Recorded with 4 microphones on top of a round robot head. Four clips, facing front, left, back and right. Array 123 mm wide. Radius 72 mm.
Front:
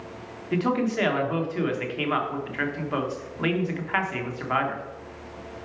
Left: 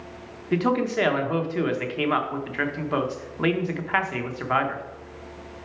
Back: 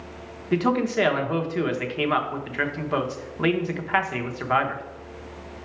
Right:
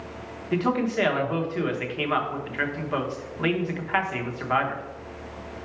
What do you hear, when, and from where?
0.5 s a man speaking: 135° left, 0.9 m